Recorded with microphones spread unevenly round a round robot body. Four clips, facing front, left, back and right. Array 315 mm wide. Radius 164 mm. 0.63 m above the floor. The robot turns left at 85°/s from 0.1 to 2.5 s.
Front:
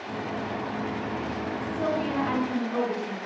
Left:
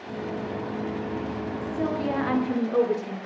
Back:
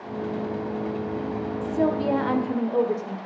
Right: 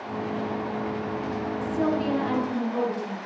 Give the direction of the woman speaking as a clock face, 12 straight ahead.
5 o'clock.